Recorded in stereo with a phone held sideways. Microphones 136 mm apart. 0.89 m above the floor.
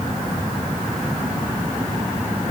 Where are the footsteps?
No footsteps in this recording.